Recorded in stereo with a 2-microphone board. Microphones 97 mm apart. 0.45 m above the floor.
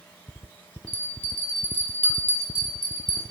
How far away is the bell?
About 1.7 m.